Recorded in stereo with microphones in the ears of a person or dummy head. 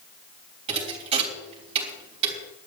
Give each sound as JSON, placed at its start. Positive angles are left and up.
{"t": 0.7, "sound": "a thud", "side_deg": -30, "distance_m": 3.5}